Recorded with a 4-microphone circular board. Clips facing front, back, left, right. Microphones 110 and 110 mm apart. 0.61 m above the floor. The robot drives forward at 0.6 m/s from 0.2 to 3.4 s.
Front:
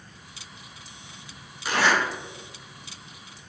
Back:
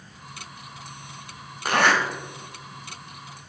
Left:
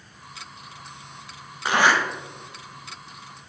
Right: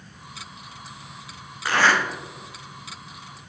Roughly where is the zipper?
Behind.